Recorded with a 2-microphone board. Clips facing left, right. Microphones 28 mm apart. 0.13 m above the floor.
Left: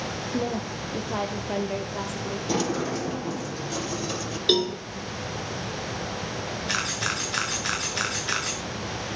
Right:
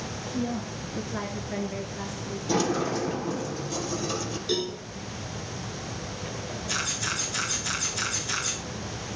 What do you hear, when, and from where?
0.3 s a woman speaking: 75° left (ahead or behind), 4.5 m; by 2.4 s 70° left (ahead or behind), 3.5 m
2.5 s a sliding door: 10° left (ahead or behind), 3 m
4.5 s a cowbell: 50° left (ahead or behind), 3.5 m
6.7 s a camera shutter: 45° left (ahead or behind), 4.5 m